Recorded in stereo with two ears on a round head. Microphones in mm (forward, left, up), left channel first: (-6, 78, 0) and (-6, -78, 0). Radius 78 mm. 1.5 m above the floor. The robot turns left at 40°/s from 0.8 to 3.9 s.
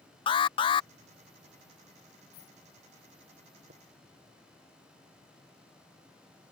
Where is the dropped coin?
65° left (ahead or behind); by 2.6 s 70° left (ahead or behind).